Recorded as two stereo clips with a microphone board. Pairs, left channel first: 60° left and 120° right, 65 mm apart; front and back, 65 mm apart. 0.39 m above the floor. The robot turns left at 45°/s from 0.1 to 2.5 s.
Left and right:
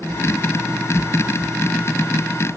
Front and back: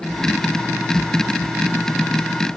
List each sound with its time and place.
Only background noise.